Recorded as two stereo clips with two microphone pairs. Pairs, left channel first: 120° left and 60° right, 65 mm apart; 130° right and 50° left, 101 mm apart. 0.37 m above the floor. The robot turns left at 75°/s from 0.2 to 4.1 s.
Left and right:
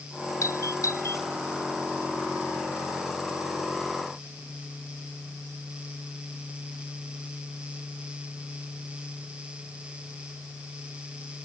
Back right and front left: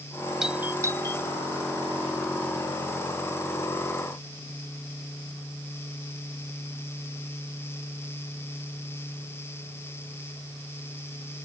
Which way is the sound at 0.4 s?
135° left.